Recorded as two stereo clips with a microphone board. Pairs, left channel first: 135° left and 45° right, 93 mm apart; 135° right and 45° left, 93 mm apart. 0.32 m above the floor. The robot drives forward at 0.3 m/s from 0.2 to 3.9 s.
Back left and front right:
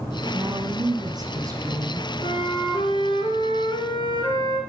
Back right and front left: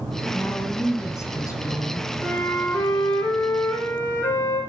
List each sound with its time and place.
0.3 s a woman speaking: 75° right, 2 m; by 2.1 s 90° right, 2 m
2.2 s a flute: 155° left, 1.7 m; by 4.6 s 160° left, 2 m